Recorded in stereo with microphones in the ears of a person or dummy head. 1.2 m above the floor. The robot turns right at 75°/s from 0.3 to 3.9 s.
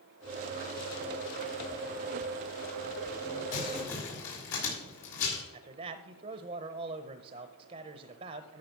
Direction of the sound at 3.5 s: 75° left (ahead or behind).